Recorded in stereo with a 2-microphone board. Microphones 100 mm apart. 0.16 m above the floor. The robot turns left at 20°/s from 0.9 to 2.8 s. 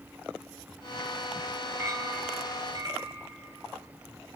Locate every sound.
1.8 s a clink: 30° right (ahead or behind), 1.9 m; by 3.2 s 50° right (ahead or behind), 1.9 m